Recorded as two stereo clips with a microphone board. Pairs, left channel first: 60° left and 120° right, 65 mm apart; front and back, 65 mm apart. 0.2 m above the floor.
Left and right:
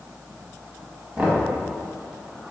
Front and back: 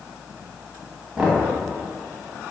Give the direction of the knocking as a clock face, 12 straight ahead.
4 o'clock.